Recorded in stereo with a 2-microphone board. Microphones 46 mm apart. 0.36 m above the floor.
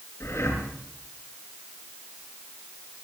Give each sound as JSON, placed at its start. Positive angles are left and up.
{"t": 0.2, "sound": "breathing", "side_deg": 75, "distance_m": 6.5}